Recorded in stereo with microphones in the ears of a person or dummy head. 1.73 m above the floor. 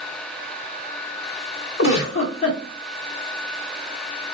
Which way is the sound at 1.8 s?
40° left (ahead or behind).